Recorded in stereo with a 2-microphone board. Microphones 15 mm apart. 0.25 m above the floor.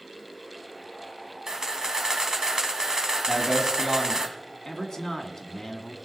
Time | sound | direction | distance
1.5 | a camera shutter | 55° right (ahead or behind) | 1.3 m
3.3 | a man speaking | 35° right (ahead or behind) | 2.0 m
4.7 | a man speaking | 45° left (ahead or behind) | 1.9 m